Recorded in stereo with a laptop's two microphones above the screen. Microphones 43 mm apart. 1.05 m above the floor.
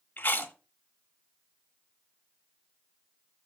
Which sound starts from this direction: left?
Chewing, at 0.2 s.